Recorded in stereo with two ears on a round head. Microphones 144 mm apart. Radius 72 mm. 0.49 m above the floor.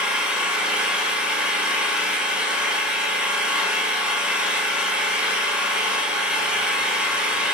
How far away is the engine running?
About 1.6 m.